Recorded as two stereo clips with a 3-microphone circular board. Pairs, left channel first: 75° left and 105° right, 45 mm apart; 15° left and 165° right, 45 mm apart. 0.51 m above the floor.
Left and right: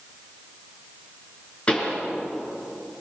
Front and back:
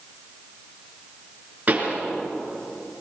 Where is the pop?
140° left, 6 m.